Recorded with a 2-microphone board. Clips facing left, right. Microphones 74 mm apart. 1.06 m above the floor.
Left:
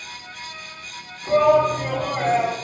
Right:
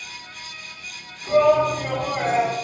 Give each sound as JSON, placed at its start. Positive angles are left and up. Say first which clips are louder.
{"t": 1.3, "sound": "a shout", "louder": "left 1 dB", "side_deg": 10, "distance_m": 2.5}